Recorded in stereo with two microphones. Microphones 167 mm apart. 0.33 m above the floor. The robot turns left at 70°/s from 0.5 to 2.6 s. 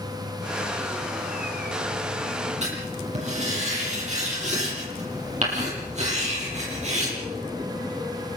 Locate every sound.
2.6 s writing: 45° right (ahead or behind), 10 m